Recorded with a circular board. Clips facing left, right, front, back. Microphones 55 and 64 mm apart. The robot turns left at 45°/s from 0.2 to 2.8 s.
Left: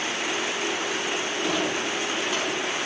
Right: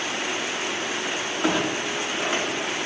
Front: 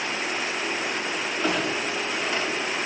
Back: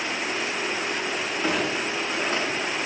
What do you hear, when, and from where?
1.4 s a clunk: 95° right, 6.5 m; by 2.8 s 155° right, 6.5 m